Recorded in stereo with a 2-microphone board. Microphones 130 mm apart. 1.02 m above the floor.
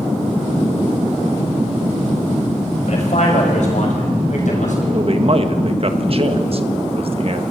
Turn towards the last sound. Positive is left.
turn(degrees=-50)  # may be behind; listen again after turning